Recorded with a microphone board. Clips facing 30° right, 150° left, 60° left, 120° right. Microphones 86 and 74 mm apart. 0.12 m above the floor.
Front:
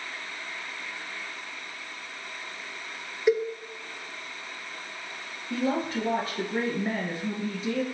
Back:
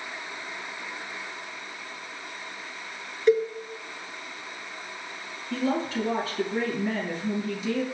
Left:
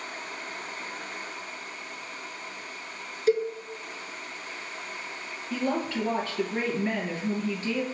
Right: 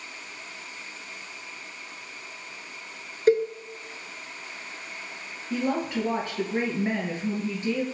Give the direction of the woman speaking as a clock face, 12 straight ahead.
2 o'clock.